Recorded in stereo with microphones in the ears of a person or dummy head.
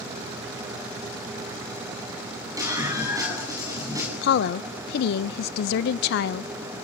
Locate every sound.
2.6 s a scream: 20° right (ahead or behind), 10 m
4.2 s a woman speaking: 60° left (ahead or behind), 0.5 m